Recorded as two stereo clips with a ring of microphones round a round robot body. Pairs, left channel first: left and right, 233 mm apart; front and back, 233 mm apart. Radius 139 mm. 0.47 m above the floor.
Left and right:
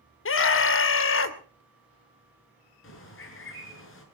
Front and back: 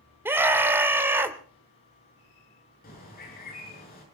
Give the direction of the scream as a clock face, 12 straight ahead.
9 o'clock.